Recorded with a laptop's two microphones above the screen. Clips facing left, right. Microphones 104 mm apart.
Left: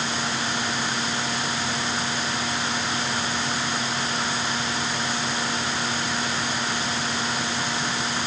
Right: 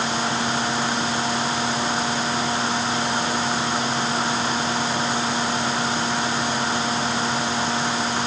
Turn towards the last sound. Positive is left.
turn(degrees=-25)  # may be behind; listen again after turning